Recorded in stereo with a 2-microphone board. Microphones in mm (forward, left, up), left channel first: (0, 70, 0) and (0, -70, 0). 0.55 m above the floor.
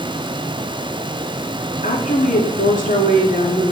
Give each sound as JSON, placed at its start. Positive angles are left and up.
{"t": 1.8, "sound": "a woman speaking", "side_deg": 75, "distance_m": 6.0}